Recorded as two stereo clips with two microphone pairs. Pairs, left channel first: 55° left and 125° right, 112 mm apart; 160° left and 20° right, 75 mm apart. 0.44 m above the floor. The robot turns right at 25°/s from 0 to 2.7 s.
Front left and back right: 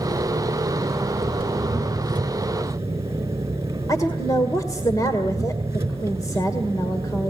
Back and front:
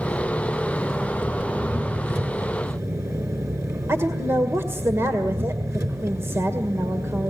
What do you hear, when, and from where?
0.0 s an engine running: 130° right, 4.5 m; by 7.3 s 65° right, 4.5 m
3.9 s a woman speaking: 15° left, 1.8 m